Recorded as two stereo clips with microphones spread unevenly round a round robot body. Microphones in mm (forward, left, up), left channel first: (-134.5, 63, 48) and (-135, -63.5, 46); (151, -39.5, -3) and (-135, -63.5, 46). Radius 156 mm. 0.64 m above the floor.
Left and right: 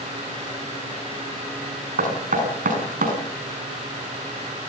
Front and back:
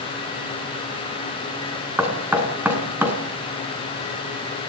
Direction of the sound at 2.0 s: 90° right.